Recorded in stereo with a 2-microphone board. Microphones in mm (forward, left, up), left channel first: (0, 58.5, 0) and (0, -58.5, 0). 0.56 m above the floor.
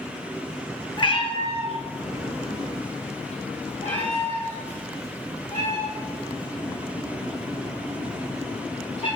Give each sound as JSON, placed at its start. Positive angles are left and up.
{"t": 1.0, "sound": "a cat meowing", "side_deg": 45, "distance_m": 0.9}